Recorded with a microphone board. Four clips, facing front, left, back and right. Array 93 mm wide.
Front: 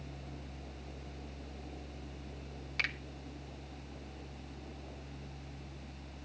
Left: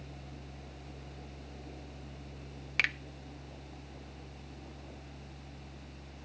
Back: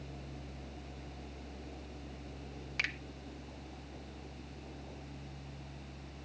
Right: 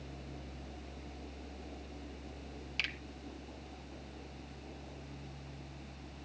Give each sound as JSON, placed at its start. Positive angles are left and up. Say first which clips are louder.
{"t": 2.8, "sound": "a finger snap", "louder": "left 8 dB, front 1 dB", "azimuth_deg": 100, "distance_m": 1.0}